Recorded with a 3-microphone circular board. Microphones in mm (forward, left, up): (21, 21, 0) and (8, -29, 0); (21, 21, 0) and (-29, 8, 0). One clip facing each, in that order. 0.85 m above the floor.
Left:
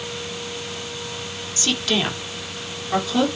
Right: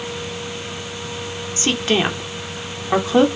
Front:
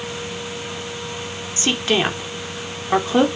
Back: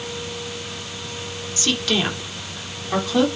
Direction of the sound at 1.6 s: 50° right.